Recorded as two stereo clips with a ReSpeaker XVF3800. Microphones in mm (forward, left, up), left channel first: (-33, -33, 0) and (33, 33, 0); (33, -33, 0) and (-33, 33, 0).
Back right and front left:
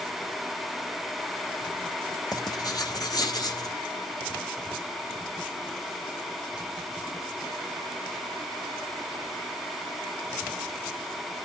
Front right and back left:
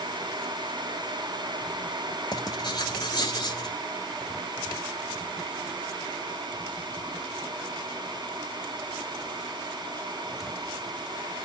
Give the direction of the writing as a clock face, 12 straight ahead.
3 o'clock.